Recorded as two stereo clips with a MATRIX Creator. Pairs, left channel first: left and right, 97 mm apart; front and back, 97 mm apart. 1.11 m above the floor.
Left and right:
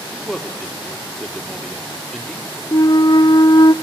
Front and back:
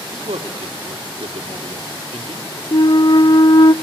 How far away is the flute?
About 0.6 m.